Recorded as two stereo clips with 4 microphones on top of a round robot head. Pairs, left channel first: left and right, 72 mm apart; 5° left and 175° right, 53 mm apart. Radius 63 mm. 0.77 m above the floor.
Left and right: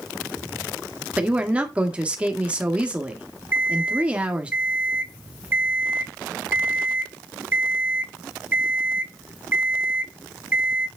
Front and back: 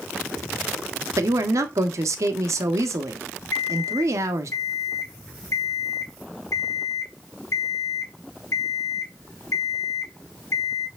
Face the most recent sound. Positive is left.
turn(degrees=-25)